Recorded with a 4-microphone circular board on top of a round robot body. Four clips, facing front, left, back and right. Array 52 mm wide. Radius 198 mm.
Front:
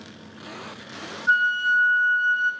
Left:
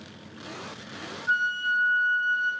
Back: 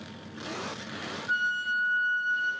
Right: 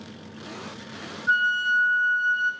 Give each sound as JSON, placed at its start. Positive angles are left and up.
{"t": 1.3, "sound": "a flute", "azimuth_deg": -25, "distance_m": 0.6}